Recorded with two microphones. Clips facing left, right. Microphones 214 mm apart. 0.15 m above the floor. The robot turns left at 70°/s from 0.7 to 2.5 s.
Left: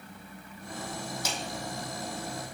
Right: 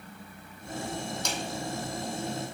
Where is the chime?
I don't hear a chime.